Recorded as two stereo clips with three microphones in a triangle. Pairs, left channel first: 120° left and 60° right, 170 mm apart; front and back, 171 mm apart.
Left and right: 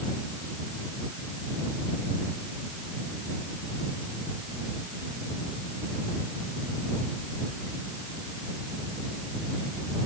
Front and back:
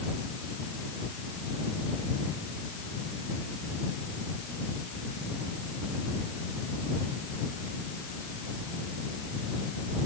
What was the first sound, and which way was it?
Only background noise.